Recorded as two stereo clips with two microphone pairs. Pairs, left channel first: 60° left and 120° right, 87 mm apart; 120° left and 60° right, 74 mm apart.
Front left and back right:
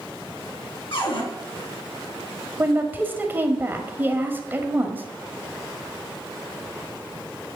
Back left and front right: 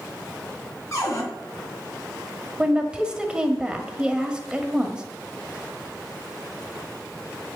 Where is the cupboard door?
80° left, 3.5 m.